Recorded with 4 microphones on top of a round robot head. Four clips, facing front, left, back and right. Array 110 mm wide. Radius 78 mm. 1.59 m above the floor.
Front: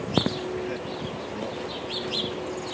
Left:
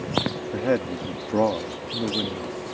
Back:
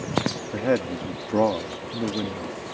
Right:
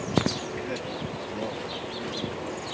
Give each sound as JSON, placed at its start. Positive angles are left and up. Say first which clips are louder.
{"t": 0.5, "sound": "a man speaking", "louder": "left 8 dB, back 7 dB", "azimuth_deg": 140}